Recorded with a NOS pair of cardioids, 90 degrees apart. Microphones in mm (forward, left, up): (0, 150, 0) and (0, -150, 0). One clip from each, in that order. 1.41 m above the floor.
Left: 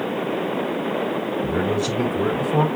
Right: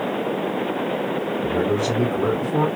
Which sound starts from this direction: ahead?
A man speaking, at 1.4 s.